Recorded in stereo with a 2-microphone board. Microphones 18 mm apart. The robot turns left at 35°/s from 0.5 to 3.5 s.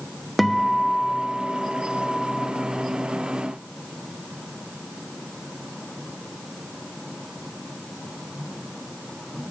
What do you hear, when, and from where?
0.4 s a guitar: 175° left, 0.8 m; by 2.5 s 105° left, 0.8 m